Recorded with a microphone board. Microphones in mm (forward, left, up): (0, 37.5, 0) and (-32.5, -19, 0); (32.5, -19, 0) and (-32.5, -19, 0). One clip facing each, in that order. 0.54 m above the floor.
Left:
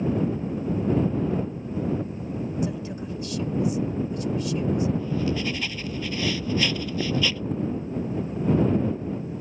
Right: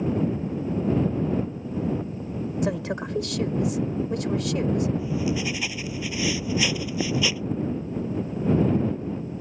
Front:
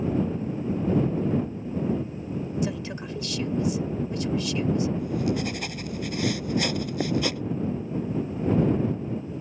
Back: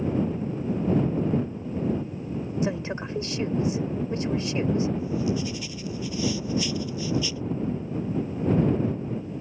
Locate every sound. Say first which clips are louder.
2.6 s a woman speaking: right 3 dB, back 2 dB; 120° right
5.0 s writing: even, even; 40° right